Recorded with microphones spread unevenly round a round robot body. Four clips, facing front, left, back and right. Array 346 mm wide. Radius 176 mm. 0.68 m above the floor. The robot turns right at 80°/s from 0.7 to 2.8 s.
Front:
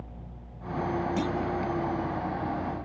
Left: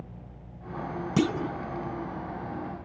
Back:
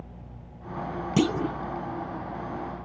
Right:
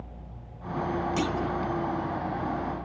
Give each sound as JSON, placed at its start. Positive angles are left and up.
{"t": 1.2, "sound": "a clunk", "azimuth_deg": 145}